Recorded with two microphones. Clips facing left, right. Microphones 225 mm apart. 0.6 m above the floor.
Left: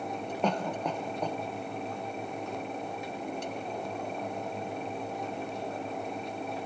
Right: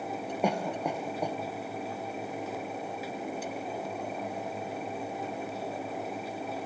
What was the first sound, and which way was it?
A cough, 10° right (ahead or behind).